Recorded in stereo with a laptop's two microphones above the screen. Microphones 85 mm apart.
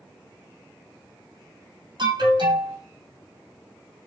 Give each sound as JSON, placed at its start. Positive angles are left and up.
{"t": 2.0, "sound": "an alarm", "side_deg": -60, "distance_m": 4.5}